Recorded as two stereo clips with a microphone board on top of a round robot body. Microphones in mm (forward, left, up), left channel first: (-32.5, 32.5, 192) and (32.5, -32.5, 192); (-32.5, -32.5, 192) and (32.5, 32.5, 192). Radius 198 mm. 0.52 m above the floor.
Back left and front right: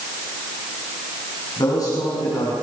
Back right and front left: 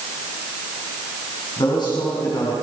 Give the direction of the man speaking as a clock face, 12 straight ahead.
6 o'clock.